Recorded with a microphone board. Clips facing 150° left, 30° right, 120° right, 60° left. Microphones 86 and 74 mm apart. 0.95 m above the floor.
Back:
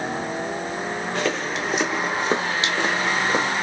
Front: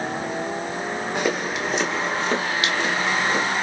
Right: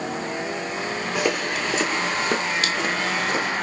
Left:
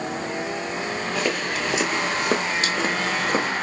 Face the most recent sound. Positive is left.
turn(degrees=105)